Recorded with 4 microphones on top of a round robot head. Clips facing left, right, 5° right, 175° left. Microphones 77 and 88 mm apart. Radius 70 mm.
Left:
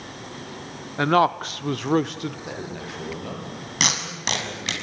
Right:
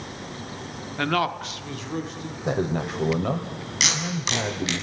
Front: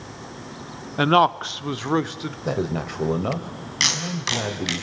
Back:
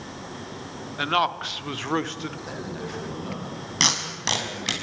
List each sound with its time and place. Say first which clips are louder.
1.0 s a man speaking: left 6 dB, front 7 dB; 20° left, 1.0 m; by 2.4 s 80° left, 1.5 m
2.5 s a man speaking: right 8 dB, front 8 dB; 40° right, 2.5 m
3.8 s tape being pulled: even, front 1 dB; 125° left, 6 m